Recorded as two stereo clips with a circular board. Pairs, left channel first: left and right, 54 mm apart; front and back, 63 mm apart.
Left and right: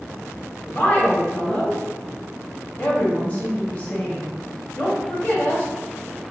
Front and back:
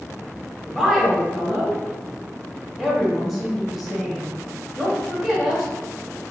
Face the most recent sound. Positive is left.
turn(degrees=95)